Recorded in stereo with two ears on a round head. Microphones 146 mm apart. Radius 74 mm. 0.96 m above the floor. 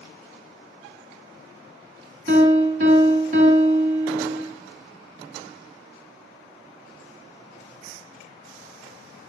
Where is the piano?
50° right (ahead or behind), 1.8 m.